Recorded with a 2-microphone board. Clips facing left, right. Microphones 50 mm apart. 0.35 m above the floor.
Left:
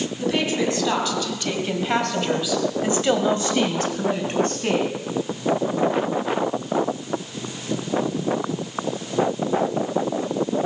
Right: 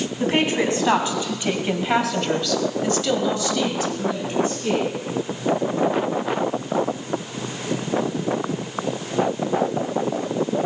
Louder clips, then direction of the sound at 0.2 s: Right 2 dB; 40° right (ahead or behind).